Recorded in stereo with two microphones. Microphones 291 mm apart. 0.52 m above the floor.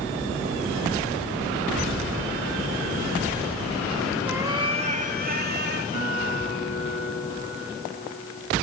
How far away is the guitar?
About 4 m.